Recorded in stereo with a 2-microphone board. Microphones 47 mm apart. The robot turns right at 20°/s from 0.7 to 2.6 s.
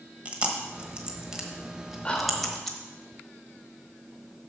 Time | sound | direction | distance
0.2 | chewing | 25° right (ahead or behind) | 1.2 m
2.0 | whispering | 20° left (ahead or behind) | 1.4 m